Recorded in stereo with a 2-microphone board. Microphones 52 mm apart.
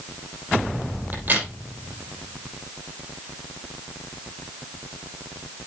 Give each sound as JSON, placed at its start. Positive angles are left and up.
{"t": 1.1, "sound": "a crack", "side_deg": -40, "distance_m": 6.0}